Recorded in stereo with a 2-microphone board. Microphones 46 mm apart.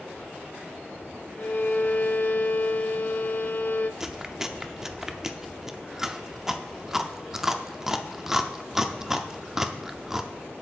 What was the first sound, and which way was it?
A violin, 45° left (ahead or behind).